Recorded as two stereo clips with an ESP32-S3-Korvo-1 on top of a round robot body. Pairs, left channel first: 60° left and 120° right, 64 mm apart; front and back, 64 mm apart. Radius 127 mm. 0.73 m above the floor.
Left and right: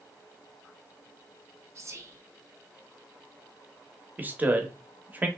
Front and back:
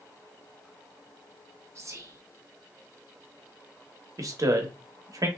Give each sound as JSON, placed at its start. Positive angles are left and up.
{"t": 1.8, "sound": "whispering", "azimuth_deg": -145, "distance_m": 0.7}
{"t": 4.2, "sound": "a man speaking", "azimuth_deg": 180, "distance_m": 0.9}